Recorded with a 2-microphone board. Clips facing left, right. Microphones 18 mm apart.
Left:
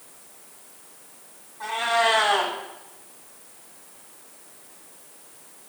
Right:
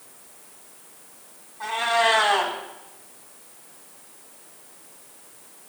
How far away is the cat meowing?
About 3.5 m.